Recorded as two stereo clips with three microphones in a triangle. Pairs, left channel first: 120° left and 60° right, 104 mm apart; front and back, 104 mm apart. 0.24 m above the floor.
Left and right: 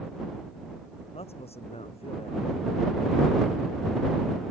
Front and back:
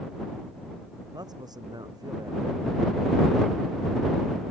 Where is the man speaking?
130° left.